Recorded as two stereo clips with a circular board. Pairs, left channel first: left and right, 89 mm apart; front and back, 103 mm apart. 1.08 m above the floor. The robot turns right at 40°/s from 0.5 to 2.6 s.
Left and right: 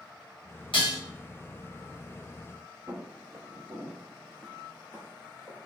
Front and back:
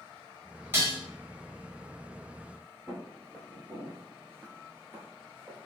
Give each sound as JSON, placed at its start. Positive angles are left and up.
{"t": 0.7, "sound": "dishes clattering", "azimuth_deg": 110, "distance_m": 1.1}
{"t": 2.9, "sound": "footsteps", "azimuth_deg": -110, "distance_m": 1.5}